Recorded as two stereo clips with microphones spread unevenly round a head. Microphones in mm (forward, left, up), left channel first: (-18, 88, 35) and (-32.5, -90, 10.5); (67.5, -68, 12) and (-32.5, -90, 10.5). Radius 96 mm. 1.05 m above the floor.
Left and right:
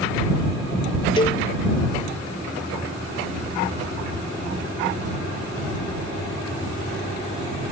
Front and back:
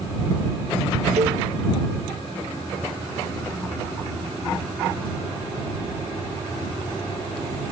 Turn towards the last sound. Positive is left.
turn(degrees=145)